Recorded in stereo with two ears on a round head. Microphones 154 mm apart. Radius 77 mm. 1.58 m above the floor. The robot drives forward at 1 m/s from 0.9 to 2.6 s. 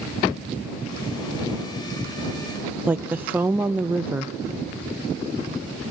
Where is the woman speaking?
10° right (ahead or behind), 0.5 m.